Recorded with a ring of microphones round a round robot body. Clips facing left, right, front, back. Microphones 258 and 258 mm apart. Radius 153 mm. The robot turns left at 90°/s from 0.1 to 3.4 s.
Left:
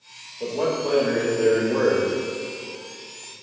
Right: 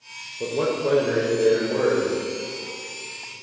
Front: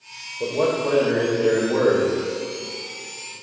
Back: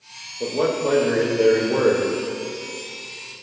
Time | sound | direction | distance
0.4 | a man speaking | 95° right | 1.2 m